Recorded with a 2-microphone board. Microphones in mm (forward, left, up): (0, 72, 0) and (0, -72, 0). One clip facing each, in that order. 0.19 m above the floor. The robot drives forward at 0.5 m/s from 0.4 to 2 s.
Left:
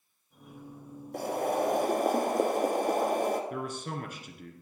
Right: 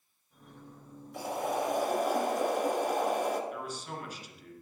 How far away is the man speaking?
About 2 m.